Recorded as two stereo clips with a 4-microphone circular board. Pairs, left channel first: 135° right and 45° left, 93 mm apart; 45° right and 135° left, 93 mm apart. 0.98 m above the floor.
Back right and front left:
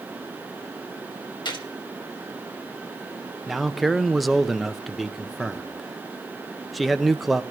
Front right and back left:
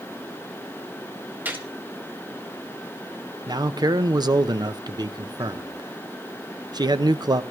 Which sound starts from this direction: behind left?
A man speaking, at 3.5 s.